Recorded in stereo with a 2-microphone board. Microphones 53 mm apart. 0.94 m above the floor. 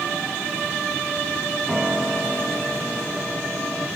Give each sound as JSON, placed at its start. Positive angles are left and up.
{"t": 1.7, "sound": "a piano", "side_deg": -15, "distance_m": 3.0}